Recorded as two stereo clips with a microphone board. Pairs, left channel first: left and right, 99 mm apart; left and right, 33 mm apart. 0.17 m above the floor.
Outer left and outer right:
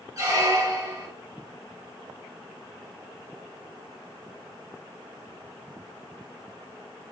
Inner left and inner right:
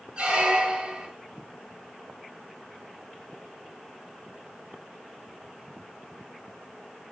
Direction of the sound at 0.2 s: 35° right (ahead or behind).